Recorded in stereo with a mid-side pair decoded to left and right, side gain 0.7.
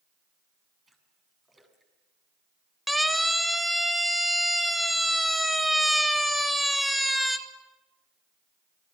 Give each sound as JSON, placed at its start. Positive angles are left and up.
{"t": 0.9, "sound": "a splash", "azimuth_deg": -15, "distance_m": 7.0}
{"t": 2.9, "sound": "a siren", "azimuth_deg": 0, "distance_m": 3.0}